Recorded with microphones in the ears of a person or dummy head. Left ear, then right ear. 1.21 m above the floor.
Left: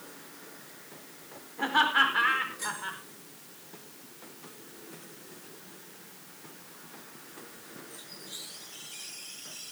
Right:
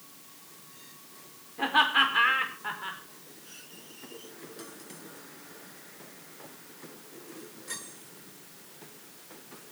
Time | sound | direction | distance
1.6 | laughter | 15° right (ahead or behind) | 4.5 m